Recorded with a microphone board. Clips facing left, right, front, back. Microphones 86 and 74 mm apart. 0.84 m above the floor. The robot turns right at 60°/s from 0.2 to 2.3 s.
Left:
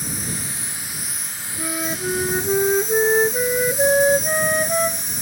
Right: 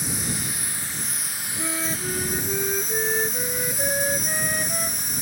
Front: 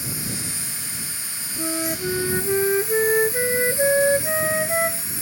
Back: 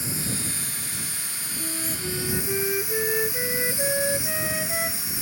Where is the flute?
5° left; by 5.2 s 50° left.